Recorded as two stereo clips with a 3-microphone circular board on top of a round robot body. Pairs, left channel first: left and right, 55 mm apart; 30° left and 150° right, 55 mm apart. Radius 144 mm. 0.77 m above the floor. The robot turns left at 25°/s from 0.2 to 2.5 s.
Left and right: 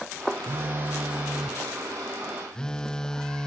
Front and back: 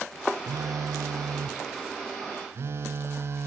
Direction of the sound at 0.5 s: 140° right.